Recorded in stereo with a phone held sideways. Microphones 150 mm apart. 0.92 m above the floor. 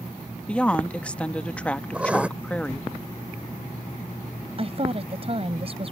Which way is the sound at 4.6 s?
40° right (ahead or behind).